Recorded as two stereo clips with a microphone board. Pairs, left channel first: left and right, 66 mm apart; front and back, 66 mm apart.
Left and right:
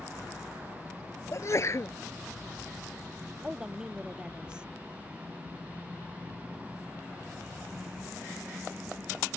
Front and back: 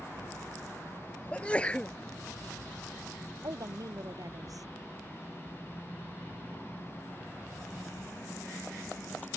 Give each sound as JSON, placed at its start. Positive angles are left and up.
{"t": 1.3, "sound": "a sneeze", "azimuth_deg": 65}
{"t": 3.4, "sound": "a woman speaking", "azimuth_deg": -165}